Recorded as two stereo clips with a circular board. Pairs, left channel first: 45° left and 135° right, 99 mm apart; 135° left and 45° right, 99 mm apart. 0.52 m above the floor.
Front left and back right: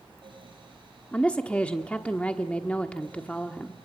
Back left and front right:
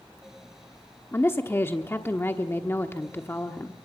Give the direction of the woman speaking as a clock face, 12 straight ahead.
8 o'clock.